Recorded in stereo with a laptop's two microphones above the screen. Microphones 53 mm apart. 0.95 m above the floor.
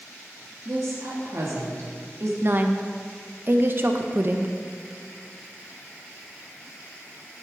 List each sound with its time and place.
0.7 s a woman speaking: 75° right (ahead or behind), 1.4 m
2.4 s a woman speaking: 45° right (ahead or behind), 0.6 m